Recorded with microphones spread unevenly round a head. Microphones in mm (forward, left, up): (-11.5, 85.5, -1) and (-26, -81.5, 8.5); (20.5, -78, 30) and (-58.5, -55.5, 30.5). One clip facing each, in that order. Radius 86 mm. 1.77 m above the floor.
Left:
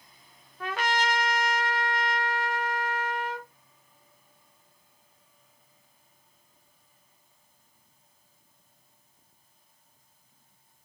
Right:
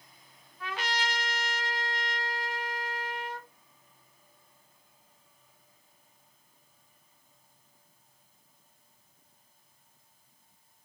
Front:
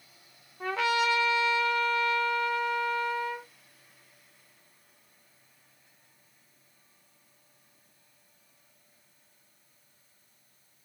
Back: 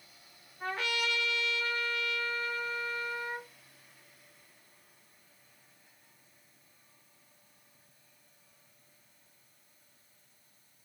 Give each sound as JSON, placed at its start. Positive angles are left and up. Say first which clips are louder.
{"t": 0.6, "sound": "a trumpet", "louder": "left 6 dB, front 7 dB", "azimuth_deg": 35, "distance_m": 1.5}